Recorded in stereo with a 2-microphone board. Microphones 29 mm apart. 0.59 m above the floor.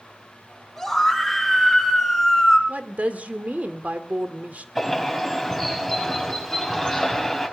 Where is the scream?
5° left (ahead or behind), 5.5 m; by 2.6 s 5° right (ahead or behind), 5.5 m.